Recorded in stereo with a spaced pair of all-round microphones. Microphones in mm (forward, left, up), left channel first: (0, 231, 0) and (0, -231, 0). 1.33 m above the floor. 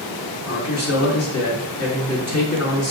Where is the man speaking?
30° left (ahead or behind), 2.5 m.